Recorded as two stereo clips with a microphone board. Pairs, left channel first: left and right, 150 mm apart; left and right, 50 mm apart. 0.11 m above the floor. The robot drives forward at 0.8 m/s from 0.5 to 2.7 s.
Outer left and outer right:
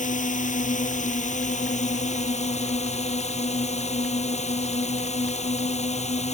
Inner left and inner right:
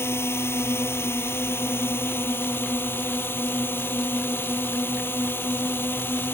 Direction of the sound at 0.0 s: 60° left (ahead or behind).